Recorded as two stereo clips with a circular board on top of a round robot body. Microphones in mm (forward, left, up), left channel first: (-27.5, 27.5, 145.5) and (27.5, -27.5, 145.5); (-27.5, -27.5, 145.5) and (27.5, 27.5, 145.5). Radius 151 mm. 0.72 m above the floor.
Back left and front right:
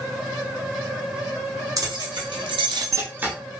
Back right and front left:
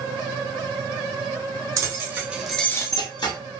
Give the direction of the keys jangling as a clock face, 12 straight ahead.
12 o'clock.